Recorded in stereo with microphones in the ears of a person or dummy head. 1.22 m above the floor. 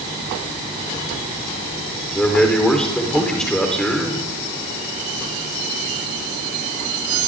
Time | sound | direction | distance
2.1 | a man speaking | 5° left (ahead or behind) | 4 m